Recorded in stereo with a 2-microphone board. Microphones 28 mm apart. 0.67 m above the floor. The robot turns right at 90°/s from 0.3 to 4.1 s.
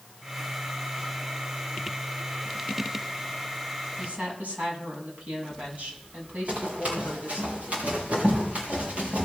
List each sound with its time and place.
4.0 s a woman speaking: 75° right (ahead or behind), 6 m; by 7.5 s 65° right (ahead or behind), 6 m
6.5 s running footsteps: 60° right (ahead or behind), 9 m; by 9.2 s 65° right (ahead or behind), 6 m